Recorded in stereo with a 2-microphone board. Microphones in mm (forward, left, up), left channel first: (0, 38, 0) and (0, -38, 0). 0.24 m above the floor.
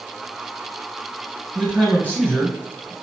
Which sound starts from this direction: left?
A man speaking, at 1.6 s.